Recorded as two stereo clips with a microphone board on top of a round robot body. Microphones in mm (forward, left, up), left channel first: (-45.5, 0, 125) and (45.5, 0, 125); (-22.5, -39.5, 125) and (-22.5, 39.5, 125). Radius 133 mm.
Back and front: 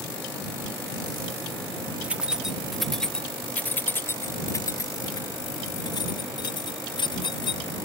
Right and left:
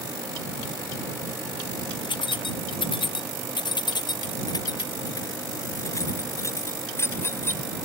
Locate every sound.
2.0 s keys jangling: 75° right; by 7.7 s 150° right